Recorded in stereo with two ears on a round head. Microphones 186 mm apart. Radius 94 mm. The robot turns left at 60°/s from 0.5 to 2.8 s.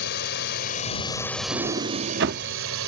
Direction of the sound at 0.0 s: 55° left.